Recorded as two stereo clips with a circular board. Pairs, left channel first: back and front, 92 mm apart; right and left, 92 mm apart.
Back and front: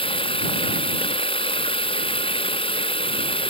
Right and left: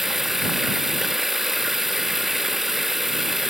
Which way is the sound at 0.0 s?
Straight behind.